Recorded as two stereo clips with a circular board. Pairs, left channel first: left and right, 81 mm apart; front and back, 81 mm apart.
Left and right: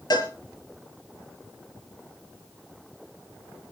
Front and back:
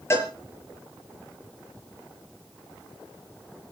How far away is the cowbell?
About 6 m.